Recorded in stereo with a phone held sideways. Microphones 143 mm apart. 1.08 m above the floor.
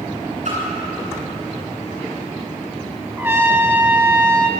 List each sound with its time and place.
0.5 s a splash: 60° right (ahead or behind), 9.5 m
3.2 s a trumpet: 15° right (ahead or behind), 1.4 m